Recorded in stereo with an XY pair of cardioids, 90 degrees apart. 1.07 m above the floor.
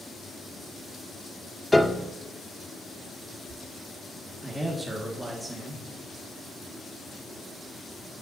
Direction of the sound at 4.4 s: 15° right.